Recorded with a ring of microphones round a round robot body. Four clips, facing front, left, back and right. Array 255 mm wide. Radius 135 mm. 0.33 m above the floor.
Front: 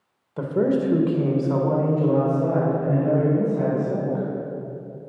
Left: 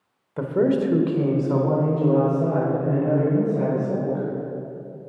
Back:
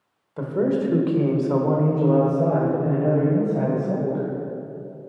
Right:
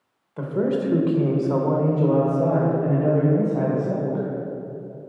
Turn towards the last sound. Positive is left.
turn(degrees=-135)